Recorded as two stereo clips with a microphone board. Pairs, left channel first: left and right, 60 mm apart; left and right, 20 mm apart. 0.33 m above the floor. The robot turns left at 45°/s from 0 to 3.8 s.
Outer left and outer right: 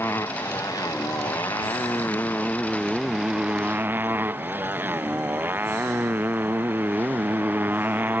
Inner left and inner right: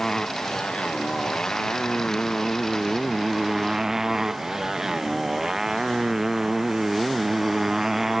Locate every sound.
0.0 s a motorcycle: 40° left (ahead or behind); by 8.2 s 30° right (ahead or behind)